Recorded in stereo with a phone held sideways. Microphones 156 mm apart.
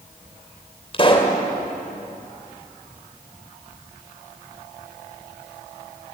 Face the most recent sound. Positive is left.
turn(degrees=35)  # may be behind; listen again after turning